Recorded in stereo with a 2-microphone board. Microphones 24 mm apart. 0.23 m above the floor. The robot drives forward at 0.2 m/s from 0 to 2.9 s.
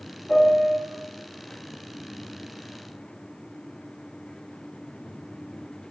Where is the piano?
40° left (ahead or behind), 0.6 m; by 0.8 s 35° left (ahead or behind), 0.7 m.